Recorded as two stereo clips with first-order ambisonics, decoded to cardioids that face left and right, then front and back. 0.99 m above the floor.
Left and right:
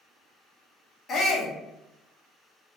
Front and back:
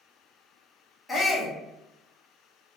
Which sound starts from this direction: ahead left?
A shout, at 1.1 s.